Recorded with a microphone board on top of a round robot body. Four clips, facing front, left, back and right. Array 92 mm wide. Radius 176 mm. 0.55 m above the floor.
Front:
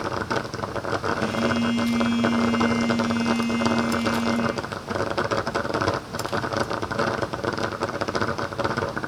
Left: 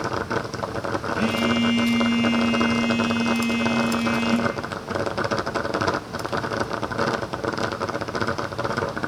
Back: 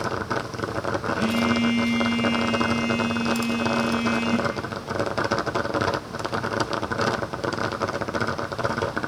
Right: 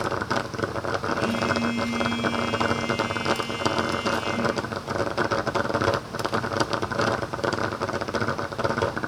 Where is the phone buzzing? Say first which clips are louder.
Left 5 dB, back 3 dB; 115° left, 6 m.